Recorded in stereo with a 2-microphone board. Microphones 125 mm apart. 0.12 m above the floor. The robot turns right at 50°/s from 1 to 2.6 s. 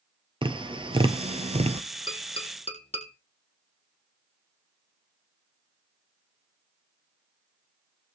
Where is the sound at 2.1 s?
40° left (ahead or behind), 3 m; by 3.1 s 65° left (ahead or behind), 3 m.